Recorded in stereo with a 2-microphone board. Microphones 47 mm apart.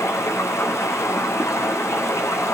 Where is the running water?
80° left, 4.5 m.